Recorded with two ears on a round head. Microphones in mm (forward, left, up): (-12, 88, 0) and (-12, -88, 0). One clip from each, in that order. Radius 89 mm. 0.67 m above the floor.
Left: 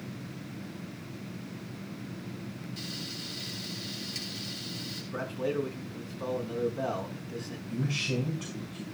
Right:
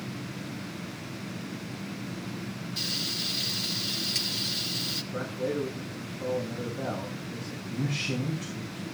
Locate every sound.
2.8 s frying: 40° right (ahead or behind), 2.5 m
5.1 s a man speaking: 50° left (ahead or behind), 6.5 m
7.7 s a man speaking: 25° left (ahead or behind), 5.5 m